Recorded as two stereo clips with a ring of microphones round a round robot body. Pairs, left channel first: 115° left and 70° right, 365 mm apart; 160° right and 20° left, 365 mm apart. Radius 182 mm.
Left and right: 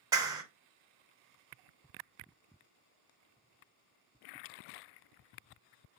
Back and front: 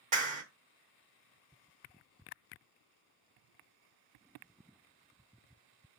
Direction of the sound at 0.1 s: 5° right.